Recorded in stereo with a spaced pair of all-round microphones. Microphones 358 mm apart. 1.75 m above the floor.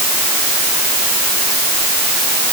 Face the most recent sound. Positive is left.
No sound to turn to.